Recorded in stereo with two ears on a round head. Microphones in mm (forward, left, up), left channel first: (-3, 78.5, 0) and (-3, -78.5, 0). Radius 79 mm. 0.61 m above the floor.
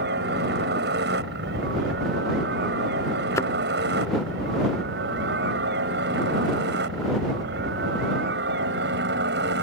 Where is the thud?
15° left (ahead or behind).